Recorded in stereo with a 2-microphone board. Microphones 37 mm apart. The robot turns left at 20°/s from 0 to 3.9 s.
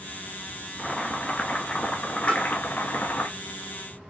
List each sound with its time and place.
0.8 s boiling: 165° left, 1.2 m; by 3.3 s 115° left, 1.2 m
2.3 s tapping: 30° left (ahead or behind), 3 m